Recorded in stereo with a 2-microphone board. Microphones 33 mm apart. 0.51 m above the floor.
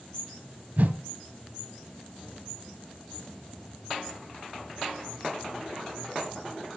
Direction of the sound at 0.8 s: 60° right (ahead or behind).